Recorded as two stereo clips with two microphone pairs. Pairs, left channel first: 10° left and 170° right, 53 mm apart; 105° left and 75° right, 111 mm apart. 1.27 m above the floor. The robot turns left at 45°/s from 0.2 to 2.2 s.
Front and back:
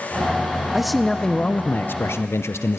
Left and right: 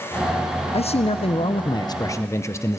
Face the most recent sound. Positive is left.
turn(degrees=40)